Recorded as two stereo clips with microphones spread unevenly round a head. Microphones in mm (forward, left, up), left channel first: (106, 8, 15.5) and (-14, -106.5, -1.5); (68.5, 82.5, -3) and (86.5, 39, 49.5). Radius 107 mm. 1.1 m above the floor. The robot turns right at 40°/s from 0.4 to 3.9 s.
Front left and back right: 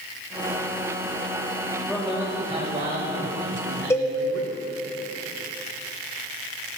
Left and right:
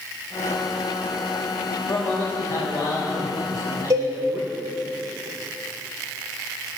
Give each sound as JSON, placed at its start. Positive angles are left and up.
{"t": 1.9, "sound": "a man speaking", "azimuth_deg": 130, "distance_m": 2.0}
{"t": 3.9, "sound": "a cowbell", "azimuth_deg": -30, "distance_m": 1.4}